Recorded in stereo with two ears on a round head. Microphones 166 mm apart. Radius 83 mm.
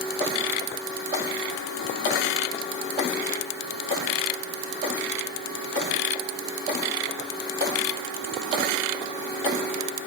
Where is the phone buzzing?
I don't hear a phone buzzing.